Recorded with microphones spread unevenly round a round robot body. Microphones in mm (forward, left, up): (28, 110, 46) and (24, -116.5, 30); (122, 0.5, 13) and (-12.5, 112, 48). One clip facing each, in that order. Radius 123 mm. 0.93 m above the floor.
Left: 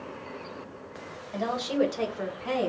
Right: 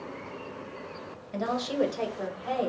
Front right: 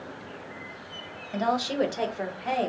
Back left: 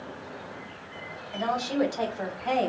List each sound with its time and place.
1.3 s a woman speaking: 15° right, 0.9 m; by 2.7 s 45° left, 0.9 m